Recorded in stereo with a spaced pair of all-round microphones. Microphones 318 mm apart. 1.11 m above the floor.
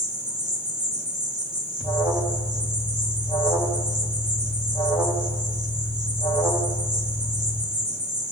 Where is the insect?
35° right (ahead or behind), 4.5 m.